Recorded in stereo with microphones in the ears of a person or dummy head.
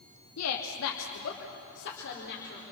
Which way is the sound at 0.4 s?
80° left.